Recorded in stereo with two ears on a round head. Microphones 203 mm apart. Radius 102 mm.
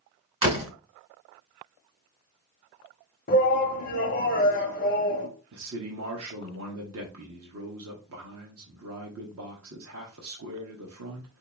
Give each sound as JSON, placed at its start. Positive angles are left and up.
{"t": 0.4, "sound": "a door slam", "side_deg": -25, "distance_m": 2.5}
{"t": 3.3, "sound": "a shout", "side_deg": 35, "distance_m": 0.8}
{"t": 5.5, "sound": "a man speaking", "side_deg": -65, "distance_m": 1.1}